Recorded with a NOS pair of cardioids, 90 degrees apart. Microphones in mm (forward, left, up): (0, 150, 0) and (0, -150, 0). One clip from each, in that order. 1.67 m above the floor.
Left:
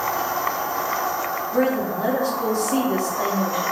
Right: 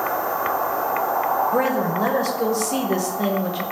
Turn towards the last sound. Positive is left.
turn(degrees=-35)